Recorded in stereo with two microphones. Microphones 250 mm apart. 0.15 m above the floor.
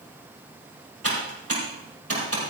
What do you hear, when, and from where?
1.0 s typing on a keyboard: 65° right (ahead or behind), 5.5 m